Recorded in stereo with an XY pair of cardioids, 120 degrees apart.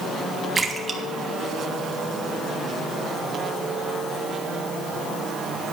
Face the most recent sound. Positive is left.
turn(degrees=-25)